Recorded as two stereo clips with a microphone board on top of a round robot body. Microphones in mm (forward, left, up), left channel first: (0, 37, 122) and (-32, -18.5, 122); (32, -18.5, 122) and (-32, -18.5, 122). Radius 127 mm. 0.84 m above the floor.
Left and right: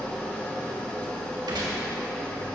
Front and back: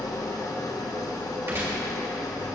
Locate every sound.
0.0 s an engine running: 15° right, 1.3 m
1.5 s a gunshot: 130° right, 2.5 m